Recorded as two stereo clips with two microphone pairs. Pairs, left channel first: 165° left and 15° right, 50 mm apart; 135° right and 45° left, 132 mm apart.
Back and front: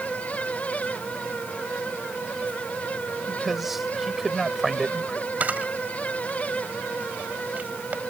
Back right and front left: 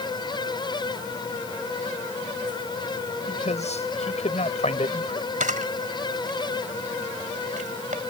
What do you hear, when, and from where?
3.3 s a man speaking: 100° right
5.4 s a camera shutter: 40° left